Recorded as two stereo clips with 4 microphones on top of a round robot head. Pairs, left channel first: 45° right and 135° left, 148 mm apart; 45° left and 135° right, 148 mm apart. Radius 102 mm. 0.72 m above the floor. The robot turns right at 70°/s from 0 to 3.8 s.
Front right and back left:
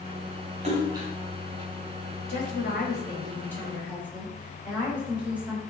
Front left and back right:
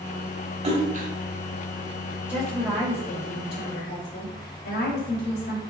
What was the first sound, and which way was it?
A splash, straight behind.